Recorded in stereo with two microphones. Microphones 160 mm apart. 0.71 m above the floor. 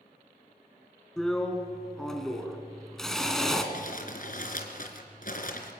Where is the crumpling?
60° left (ahead or behind), 3 m.